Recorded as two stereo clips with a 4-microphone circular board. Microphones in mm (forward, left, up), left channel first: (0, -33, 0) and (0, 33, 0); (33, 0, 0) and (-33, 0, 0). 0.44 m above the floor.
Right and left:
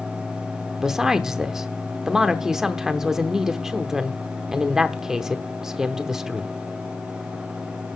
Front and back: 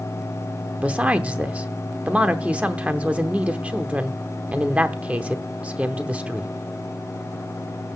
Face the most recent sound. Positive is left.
turn(degrees=160)